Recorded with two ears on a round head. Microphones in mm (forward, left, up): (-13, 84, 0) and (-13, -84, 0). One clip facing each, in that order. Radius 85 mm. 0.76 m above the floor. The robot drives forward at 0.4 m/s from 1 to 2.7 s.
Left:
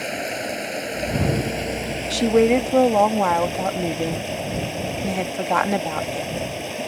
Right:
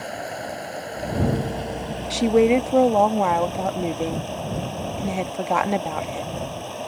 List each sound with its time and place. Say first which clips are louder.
0.0 s running water: left 3 dB; 30° left (ahead or behind); by 6.9 s 25° left (ahead or behind)
2.1 s a woman speaking: even; centre (ahead or behind)